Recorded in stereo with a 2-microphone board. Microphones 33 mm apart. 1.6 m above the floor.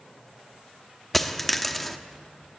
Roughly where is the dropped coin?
Centre.